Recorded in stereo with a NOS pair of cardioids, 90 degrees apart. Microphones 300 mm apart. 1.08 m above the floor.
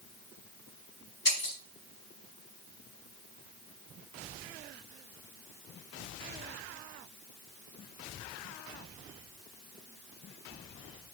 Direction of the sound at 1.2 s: 35° left.